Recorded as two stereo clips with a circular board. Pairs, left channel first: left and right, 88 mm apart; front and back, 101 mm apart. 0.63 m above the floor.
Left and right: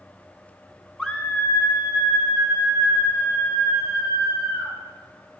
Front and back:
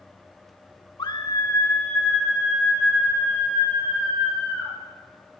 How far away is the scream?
About 1.2 m.